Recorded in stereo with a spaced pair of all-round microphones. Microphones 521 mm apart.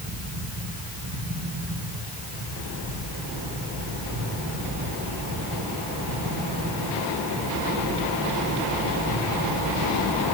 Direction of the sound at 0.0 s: 55° right (ahead or behind).